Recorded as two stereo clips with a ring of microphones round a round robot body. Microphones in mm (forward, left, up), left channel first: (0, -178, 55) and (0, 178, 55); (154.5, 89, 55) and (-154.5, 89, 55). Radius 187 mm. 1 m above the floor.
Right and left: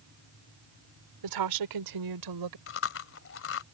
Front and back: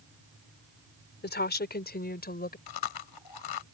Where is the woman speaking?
60° left.